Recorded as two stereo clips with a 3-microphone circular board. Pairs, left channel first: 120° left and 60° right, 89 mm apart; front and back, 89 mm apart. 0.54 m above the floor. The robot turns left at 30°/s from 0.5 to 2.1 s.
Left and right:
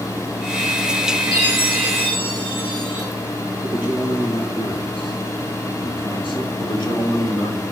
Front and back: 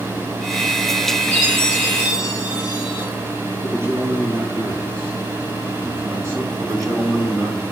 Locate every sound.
1.3 s a chime: 165° left, 4.5 m; by 3.1 s 140° left, 4.5 m
3.6 s a man speaking: 130° left, 4 m
6.6 s a man speaking: 135° left, 1.9 m